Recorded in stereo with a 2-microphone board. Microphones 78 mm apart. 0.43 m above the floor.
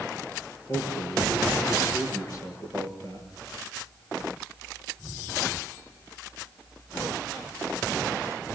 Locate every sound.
0.7 s a man speaking: 45° left (ahead or behind), 7.5 m